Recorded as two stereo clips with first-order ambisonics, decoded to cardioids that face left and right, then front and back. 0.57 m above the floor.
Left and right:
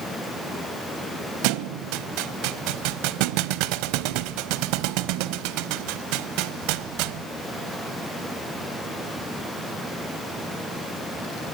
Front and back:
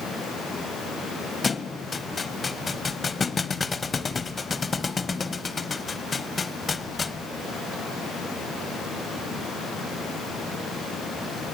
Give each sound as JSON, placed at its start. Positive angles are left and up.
{"t": 1.4, "sound": "a thud", "azimuth_deg": -75, "distance_m": 0.9}